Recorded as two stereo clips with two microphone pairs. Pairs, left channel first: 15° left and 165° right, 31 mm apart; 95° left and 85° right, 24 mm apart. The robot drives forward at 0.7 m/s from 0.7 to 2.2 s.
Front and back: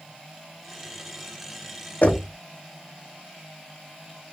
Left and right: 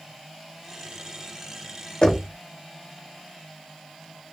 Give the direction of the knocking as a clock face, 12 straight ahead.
11 o'clock.